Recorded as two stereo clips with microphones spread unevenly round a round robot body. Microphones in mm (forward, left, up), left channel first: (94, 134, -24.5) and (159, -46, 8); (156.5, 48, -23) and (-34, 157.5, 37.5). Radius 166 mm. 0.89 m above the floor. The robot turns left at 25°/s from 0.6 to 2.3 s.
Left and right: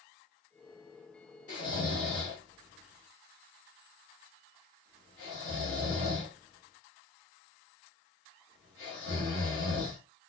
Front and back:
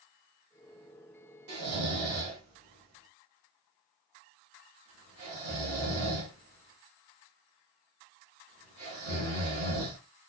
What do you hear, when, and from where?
1.5 s snoring: straight behind, 1.0 m; by 10.0 s 160° left, 1.0 m